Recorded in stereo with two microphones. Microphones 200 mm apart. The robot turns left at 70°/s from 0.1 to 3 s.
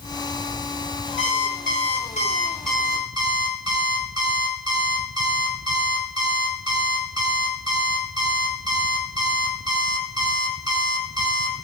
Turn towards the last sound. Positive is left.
turn(degrees=-20)